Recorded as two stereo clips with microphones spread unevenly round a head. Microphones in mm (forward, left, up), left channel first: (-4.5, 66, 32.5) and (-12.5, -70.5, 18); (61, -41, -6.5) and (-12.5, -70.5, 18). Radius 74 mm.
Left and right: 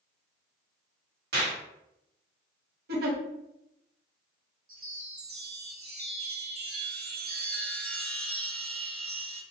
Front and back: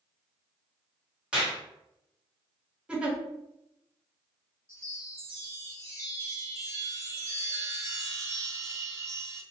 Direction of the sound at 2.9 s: 80° right.